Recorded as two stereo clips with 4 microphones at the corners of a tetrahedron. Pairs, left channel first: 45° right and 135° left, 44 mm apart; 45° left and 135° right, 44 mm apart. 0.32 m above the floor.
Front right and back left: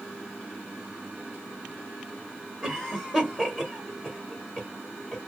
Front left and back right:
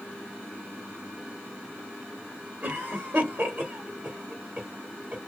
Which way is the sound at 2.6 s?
155° right.